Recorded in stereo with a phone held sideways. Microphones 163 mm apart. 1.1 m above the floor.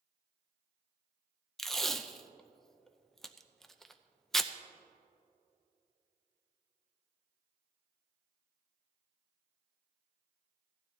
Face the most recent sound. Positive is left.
turn(degrees=0)  # may be behind; listen again after turning